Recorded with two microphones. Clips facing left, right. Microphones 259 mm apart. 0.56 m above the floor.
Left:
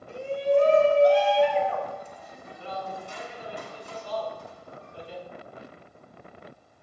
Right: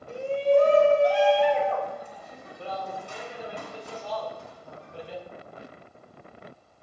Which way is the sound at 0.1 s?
45° right (ahead or behind).